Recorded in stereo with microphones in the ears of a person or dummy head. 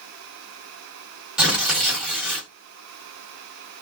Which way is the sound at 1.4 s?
5° right (ahead or behind).